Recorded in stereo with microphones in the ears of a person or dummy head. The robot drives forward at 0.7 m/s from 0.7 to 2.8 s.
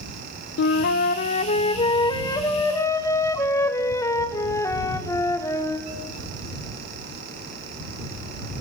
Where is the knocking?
I don't hear knocking.